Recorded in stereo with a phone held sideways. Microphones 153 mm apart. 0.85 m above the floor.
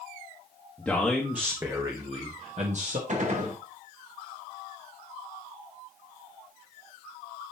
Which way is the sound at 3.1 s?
50° right (ahead or behind).